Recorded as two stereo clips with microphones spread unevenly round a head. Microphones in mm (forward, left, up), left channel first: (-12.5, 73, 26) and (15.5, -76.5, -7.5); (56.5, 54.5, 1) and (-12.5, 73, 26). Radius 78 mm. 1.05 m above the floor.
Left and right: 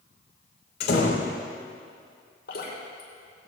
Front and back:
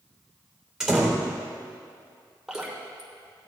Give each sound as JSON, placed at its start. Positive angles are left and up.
{"t": 0.8, "sound": "a door slam", "azimuth_deg": 80, "distance_m": 3.0}
{"t": 2.5, "sound": "dripping", "azimuth_deg": 80, "distance_m": 5.0}